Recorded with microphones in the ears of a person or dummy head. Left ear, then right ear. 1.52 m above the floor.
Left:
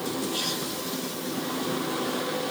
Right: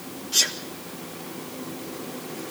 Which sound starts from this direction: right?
A sneeze, at 0.3 s.